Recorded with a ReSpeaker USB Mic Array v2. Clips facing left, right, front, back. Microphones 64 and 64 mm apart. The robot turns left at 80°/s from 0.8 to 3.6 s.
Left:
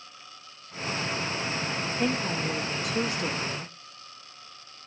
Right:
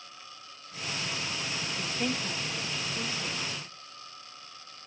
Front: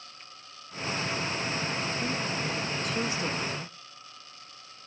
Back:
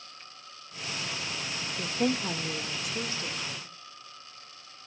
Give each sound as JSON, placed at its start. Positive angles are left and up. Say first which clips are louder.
{"t": 1.8, "sound": "a woman speaking", "louder": "left 4 dB, back 2 dB", "azimuth_deg": -175, "distance_m": 2.0}